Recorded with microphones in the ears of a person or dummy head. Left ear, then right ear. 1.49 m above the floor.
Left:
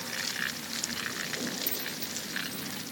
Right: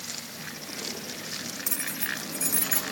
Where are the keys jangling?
35° right (ahead or behind); by 2.9 s 45° right (ahead or behind).